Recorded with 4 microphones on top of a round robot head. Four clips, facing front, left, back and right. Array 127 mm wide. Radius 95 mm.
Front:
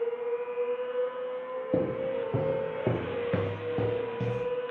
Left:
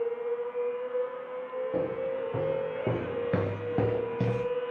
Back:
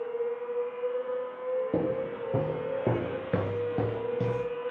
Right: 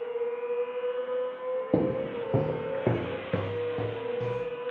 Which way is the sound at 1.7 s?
85° right.